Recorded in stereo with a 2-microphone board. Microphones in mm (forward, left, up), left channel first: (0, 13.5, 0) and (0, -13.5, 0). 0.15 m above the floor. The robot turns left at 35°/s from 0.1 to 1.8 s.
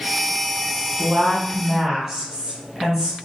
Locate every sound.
1.0 s a woman speaking: 25° right (ahead or behind), 1.5 m; by 3.2 s 10° right (ahead or behind), 1.5 m